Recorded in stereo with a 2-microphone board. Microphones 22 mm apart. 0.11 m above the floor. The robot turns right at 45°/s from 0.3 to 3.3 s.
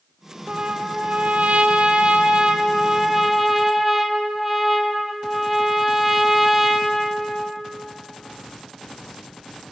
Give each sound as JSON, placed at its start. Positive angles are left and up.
{"t": 0.5, "sound": "a trumpet", "azimuth_deg": -145, "distance_m": 1.8}